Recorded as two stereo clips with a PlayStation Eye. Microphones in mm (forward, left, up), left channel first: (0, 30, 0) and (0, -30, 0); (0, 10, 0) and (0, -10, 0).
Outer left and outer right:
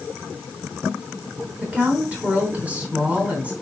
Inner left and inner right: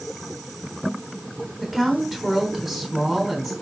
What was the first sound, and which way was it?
A woman speaking, 20° right (ahead or behind).